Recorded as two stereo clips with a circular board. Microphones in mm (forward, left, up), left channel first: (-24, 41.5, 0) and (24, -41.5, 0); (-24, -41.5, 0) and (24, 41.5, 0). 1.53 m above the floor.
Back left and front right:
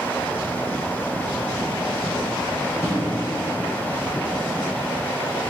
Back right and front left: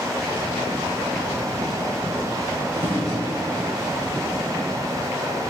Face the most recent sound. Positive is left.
turn(degrees=60)